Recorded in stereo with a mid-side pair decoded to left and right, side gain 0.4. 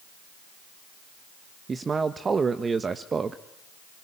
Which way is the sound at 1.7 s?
40° right.